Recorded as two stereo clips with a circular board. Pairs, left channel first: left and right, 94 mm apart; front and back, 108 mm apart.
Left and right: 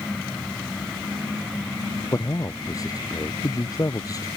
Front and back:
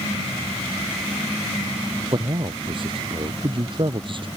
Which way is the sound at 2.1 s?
140° left.